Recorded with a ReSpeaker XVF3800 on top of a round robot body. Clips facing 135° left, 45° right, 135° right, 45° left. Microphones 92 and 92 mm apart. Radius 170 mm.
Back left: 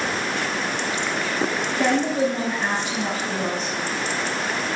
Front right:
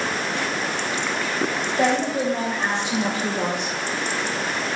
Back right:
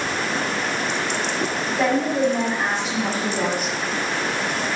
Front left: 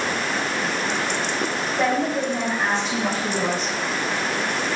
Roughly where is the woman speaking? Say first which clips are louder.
Back left 1 dB, back right 3 dB; ahead right.